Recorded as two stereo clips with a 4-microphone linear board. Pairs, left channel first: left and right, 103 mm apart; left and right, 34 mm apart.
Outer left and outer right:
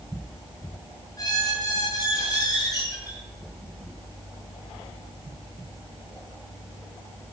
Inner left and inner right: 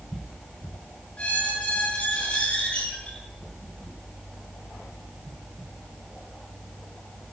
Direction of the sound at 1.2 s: 40° left (ahead or behind).